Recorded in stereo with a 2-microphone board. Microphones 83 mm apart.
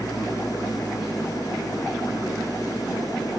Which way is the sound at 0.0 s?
50° left (ahead or behind).